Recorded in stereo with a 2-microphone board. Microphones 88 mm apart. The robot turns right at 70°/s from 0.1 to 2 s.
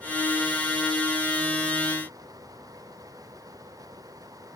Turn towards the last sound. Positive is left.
No sound to turn to.